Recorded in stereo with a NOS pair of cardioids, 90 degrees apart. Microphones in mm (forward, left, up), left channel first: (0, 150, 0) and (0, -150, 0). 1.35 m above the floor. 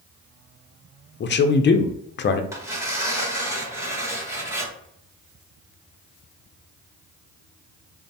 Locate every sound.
1.2 s a man speaking: 40° left, 0.5 m
2.5 s tearing paper: 10° right, 1.6 m